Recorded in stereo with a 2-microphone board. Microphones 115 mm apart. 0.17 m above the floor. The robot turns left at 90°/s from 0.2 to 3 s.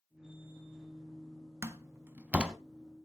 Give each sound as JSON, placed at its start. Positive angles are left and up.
{"t": 1.6, "sound": "a door slam", "side_deg": -25, "distance_m": 0.8}